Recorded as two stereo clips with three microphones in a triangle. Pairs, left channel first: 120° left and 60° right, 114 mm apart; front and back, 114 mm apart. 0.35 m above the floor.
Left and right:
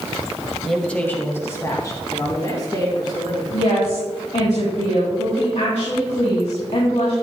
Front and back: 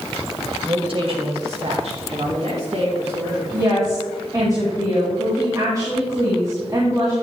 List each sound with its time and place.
0.7 s a woman speaking: 150° right, 1.7 m; by 3.4 s 170° left, 5 m
3.5 s a woman speaking: 125° left, 2.5 m